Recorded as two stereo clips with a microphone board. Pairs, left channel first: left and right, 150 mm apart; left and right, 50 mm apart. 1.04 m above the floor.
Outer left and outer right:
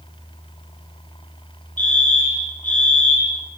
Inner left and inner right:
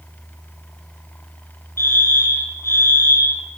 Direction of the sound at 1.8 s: 60° left (ahead or behind).